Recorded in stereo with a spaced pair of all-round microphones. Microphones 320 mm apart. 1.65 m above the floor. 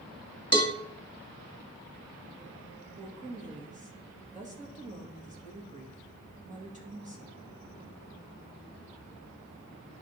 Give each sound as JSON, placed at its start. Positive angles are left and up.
{"t": 0.5, "sound": "a cowbell", "side_deg": 15, "distance_m": 1.3}
{"t": 3.0, "sound": "a woman speaking", "side_deg": -25, "distance_m": 2.0}